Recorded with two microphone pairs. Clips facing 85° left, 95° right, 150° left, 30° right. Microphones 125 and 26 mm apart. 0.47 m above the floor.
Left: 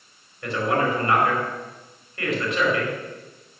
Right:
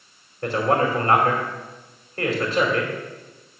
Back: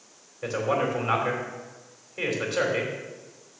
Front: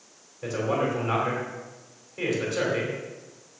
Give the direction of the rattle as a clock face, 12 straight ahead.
No rattle in this recording.